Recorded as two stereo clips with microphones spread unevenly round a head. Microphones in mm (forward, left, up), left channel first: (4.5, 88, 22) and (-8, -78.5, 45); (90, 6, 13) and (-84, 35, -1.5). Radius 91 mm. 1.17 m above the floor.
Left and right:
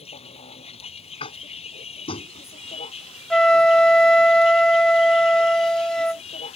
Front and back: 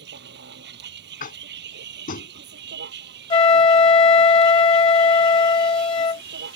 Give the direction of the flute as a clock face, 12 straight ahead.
12 o'clock.